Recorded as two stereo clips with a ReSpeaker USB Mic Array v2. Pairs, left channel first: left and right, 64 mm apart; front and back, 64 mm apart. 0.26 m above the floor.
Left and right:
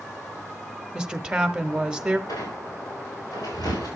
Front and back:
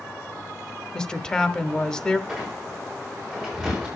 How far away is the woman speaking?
About 1.0 m.